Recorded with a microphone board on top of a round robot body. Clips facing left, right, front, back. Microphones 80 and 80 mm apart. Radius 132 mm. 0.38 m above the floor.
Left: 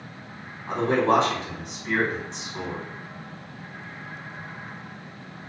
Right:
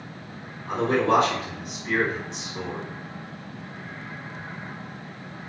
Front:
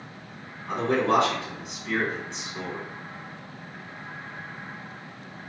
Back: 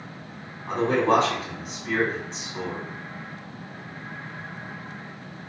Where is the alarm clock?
I don't hear an alarm clock.